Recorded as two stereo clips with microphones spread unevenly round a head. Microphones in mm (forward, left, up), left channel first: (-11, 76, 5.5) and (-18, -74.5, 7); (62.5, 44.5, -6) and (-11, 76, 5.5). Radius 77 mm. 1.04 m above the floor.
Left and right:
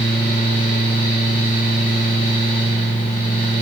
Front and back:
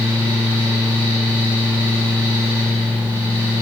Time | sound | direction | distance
0.0 | a fan | 120° left | 2.5 m